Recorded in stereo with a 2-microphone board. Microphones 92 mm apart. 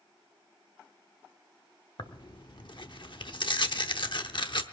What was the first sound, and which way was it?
Tearing paper, 60° left (ahead or behind).